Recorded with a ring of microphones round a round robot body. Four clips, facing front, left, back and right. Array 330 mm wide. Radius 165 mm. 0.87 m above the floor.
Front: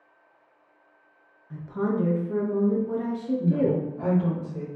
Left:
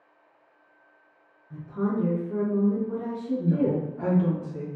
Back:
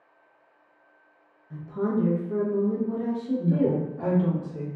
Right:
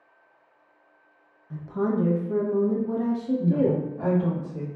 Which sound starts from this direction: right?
A woman speaking, at 1.5 s.